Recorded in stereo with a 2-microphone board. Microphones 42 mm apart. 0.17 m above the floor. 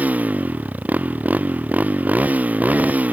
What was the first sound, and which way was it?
A motorcycle, 40° right (ahead or behind).